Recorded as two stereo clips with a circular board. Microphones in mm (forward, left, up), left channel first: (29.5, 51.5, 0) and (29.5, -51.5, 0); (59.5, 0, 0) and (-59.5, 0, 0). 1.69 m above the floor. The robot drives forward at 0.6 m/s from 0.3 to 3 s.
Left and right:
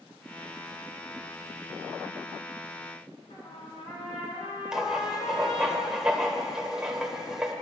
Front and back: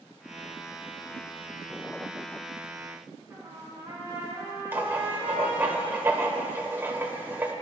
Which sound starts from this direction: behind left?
A trumpet, at 3.3 s.